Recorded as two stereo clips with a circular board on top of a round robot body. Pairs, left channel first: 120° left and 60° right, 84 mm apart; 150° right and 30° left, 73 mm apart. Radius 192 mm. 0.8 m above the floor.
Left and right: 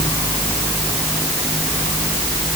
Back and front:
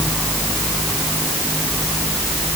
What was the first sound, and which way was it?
Only background noise.